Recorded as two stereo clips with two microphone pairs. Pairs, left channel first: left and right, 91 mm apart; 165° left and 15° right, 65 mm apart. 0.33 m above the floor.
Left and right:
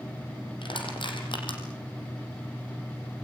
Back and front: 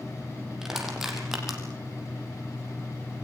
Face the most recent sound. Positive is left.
turn(degrees=65)